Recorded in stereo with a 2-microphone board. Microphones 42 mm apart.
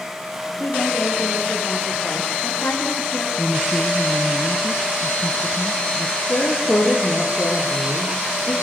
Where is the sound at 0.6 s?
65° left (ahead or behind), 6 m; by 3.3 s 55° left (ahead or behind), 7.5 m.